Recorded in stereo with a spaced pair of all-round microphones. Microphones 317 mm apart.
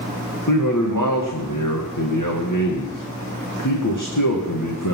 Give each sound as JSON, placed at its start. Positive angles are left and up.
{"t": 0.5, "sound": "a man speaking", "side_deg": 65, "distance_m": 2.0}